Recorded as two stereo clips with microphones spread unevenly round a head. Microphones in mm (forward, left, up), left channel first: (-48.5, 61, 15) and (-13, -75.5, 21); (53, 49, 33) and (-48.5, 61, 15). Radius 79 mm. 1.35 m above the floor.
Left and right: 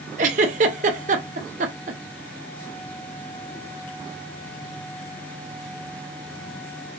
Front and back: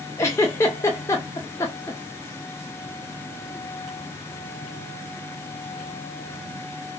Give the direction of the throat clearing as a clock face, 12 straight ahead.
No throat clearing in this recording.